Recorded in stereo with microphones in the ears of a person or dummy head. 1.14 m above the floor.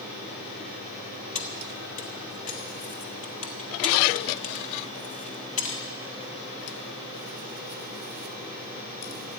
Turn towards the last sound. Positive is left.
turn(degrees=40)  # may be behind; listen again after turning